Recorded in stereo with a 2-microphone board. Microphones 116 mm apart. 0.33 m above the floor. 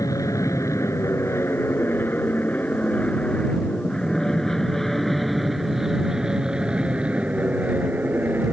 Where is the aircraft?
30° left (ahead or behind); by 8.5 s 15° right (ahead or behind).